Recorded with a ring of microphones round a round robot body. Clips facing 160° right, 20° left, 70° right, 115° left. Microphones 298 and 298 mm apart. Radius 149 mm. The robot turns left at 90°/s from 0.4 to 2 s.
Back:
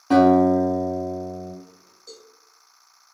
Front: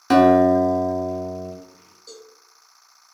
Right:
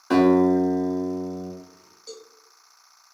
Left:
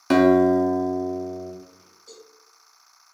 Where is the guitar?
70° left, 0.8 m; by 1.5 s 30° right, 0.8 m.